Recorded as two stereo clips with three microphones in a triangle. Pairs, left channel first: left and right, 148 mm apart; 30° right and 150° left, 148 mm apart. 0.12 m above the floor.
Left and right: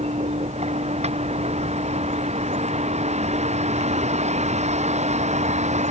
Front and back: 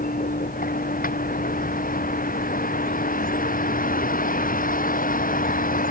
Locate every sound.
0.0 s a vehicle: 45° right; by 5.9 s 50° right